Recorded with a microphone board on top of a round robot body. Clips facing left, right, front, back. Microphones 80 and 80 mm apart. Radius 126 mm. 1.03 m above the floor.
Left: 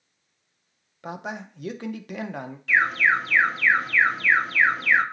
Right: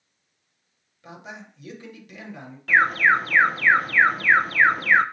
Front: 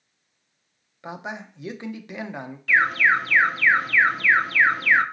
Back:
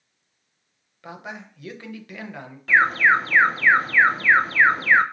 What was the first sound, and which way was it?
A man speaking, 65° left.